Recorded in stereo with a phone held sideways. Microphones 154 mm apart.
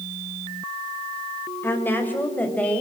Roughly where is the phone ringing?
I don't hear a phone ringing.